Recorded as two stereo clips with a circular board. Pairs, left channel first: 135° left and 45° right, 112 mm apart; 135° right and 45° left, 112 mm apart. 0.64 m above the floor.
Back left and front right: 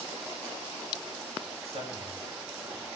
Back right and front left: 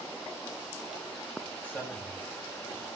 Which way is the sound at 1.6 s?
60° right.